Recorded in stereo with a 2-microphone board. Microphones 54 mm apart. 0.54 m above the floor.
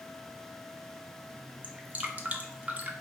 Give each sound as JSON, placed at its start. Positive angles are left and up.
{"t": 1.6, "sound": "dripping", "side_deg": -30, "distance_m": 0.6}